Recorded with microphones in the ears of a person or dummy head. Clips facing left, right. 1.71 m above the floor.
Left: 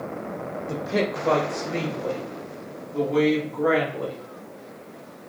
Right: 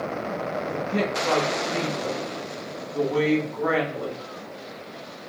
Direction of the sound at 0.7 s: 80° left.